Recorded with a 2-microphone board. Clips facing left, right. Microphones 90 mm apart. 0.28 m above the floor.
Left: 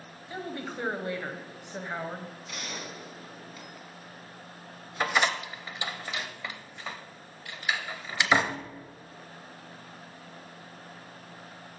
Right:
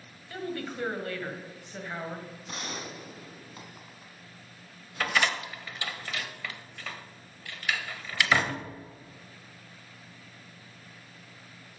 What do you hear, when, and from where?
0.3 s a woman speaking: 20° left (ahead or behind), 1.7 m
2.5 s a gunshot: 35° right (ahead or behind), 2.5 m
5.0 s a door slam: 20° left (ahead or behind), 0.9 m